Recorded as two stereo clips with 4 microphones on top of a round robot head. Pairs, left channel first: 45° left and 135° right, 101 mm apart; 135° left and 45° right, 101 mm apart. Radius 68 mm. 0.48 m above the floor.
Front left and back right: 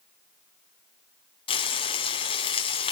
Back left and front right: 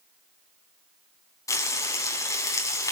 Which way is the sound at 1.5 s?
80° left.